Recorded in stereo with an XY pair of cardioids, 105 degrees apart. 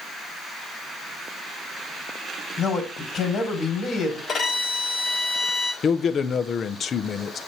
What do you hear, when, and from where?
2.6 s a man speaking: 60° left, 3 m
4.3 s a violin: 50° left, 2.5 m
5.8 s a man speaking: 50° left, 0.7 m